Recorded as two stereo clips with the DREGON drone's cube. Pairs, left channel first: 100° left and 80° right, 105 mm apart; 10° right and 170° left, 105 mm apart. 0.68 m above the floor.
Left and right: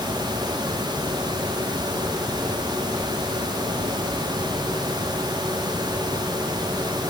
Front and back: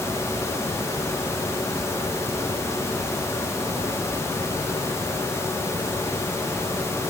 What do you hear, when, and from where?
Only background noise.